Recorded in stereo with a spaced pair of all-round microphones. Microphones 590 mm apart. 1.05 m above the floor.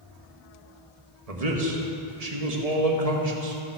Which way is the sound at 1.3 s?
75° right (ahead or behind).